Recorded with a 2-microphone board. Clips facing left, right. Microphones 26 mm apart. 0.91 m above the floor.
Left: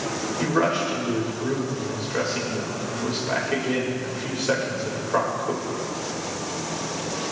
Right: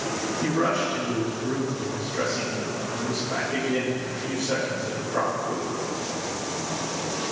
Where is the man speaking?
80° left, 4 m.